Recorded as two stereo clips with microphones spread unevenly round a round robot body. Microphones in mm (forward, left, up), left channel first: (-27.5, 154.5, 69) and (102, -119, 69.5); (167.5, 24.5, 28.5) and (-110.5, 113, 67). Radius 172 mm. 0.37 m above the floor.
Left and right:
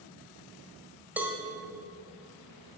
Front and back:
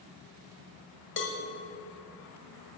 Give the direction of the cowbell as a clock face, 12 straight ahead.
11 o'clock.